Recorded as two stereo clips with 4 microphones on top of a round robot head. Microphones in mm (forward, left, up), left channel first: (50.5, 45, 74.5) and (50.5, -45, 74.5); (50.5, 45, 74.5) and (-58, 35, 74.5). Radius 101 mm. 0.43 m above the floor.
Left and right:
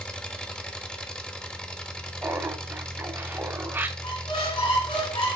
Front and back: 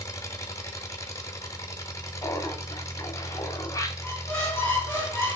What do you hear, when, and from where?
0.0 s an engine running: 20° left, 0.8 m
2.2 s laughter: 35° right, 0.9 m
4.0 s a squeak: 75° left, 2.5 m